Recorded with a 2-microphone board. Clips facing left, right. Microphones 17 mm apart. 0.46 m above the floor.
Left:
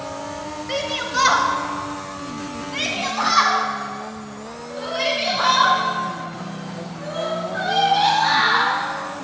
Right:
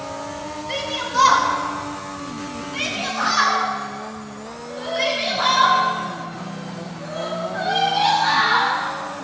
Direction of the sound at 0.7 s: 30° left (ahead or behind).